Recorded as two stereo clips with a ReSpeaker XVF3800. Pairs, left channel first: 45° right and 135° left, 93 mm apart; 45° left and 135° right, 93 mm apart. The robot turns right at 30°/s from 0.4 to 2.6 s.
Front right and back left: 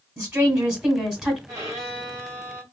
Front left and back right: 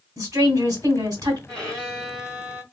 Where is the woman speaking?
165° right, 1.9 m; by 1.4 s 135° right, 1.9 m.